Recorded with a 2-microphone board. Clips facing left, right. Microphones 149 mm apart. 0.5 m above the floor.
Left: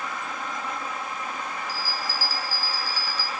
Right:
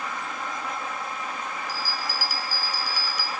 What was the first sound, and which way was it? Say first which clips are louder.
A bell: even; 15° right (ahead or behind).